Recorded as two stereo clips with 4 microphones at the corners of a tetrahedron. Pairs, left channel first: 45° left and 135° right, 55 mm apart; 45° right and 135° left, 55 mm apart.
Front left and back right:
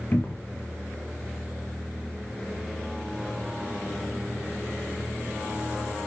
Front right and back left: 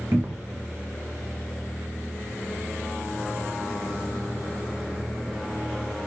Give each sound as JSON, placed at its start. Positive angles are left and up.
{"t": 0.1, "sound": "a cupboard door", "azimuth_deg": 100, "distance_m": 0.8}